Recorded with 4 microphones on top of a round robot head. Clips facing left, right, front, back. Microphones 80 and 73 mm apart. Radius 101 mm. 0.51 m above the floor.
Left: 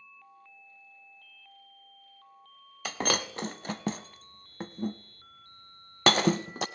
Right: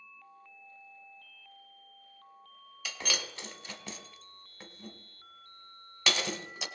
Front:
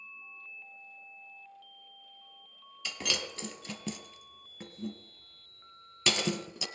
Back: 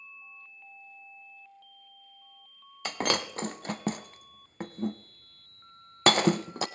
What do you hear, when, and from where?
2.9 s breaking glass: 135° left, 0.5 m